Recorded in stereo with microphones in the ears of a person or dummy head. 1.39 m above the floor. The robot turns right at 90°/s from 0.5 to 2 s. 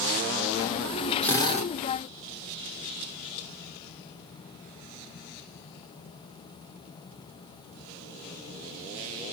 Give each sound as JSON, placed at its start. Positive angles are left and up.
{"t": 1.2, "sound": "a drill", "azimuth_deg": 5, "distance_m": 1.5}